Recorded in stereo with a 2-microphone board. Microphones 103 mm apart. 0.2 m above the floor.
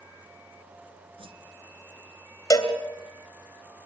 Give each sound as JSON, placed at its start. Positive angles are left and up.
{"t": 1.2, "sound": "a whoosh", "side_deg": -65, "distance_m": 2.0}
{"t": 2.5, "sound": "a cowbell", "side_deg": 35, "distance_m": 3.0}